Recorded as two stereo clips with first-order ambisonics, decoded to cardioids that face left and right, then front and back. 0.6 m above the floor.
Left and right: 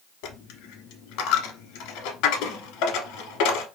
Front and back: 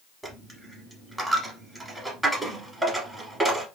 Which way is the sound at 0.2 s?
95° left.